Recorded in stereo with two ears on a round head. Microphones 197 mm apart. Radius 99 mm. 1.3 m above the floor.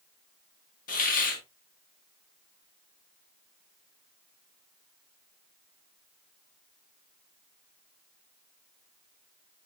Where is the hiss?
40° left (ahead or behind), 2 m.